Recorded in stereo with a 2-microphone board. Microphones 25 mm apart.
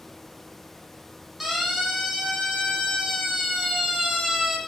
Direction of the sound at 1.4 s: Centre (ahead or behind).